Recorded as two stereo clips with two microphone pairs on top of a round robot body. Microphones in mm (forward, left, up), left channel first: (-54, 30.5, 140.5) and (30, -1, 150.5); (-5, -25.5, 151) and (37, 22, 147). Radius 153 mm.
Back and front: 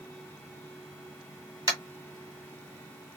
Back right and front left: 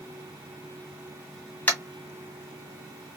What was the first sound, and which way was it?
Tapping, 70° right.